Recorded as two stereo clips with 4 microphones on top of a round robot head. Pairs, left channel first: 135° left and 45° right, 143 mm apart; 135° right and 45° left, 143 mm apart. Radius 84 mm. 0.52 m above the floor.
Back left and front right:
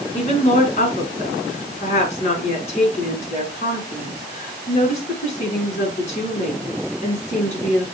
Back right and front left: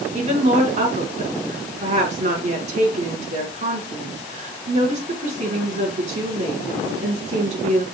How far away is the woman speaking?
About 4.5 m.